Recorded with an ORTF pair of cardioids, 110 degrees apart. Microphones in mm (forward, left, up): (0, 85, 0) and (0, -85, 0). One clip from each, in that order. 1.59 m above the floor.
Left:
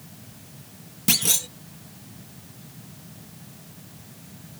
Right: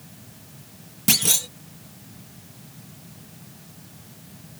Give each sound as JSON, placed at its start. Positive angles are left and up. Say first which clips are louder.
{"t": 0.0, "sound": "a fan", "louder": "even", "azimuth_deg": 0}
{"t": 1.1, "sound": "a clunk", "louder": "right 2 dB", "azimuth_deg": -10}